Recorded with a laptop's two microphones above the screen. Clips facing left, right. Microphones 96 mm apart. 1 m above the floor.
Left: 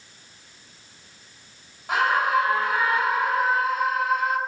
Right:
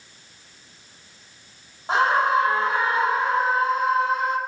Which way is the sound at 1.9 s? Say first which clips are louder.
Right 2 dB; 30° right (ahead or behind).